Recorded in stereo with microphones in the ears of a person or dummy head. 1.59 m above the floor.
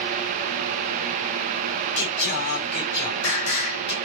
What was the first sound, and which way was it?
Singing, 75° left (ahead or behind).